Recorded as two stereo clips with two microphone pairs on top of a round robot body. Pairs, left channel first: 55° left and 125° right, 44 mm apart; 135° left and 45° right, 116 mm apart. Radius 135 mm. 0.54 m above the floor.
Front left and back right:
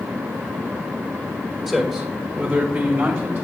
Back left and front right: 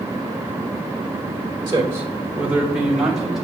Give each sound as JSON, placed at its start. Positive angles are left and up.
{"t": 1.7, "sound": "a man speaking", "azimuth_deg": -65, "distance_m": 1.4}